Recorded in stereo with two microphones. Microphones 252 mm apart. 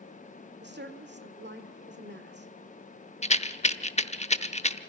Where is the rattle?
25° left (ahead or behind), 0.8 m.